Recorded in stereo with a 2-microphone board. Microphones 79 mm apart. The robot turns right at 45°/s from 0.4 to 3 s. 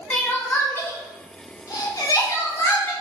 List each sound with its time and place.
0.1 s crying: 20° left (ahead or behind), 1.1 m; by 2.9 s 30° left (ahead or behind), 1.1 m